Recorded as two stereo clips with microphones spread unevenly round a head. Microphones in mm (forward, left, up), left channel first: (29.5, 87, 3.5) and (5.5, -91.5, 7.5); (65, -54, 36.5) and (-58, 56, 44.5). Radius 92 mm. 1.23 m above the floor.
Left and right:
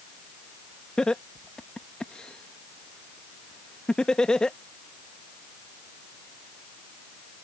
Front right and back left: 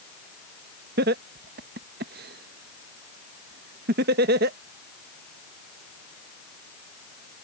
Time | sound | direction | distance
1.0 | laughter | 170° left | ?